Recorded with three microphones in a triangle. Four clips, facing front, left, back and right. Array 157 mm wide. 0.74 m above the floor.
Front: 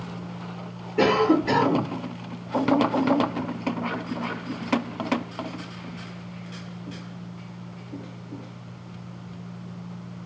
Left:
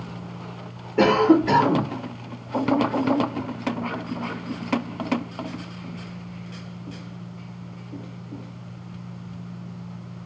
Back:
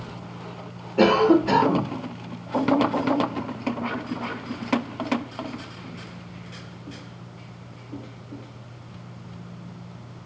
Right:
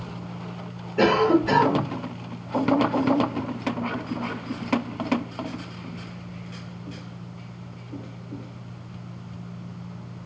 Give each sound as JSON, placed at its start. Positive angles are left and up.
{"t": 1.0, "sound": "a cough", "azimuth_deg": 100, "distance_m": 1.1}